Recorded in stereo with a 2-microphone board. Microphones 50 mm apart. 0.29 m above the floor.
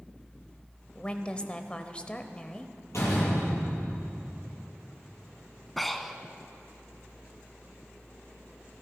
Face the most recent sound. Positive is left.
turn(degrees=5)  # may be behind; listen again after turning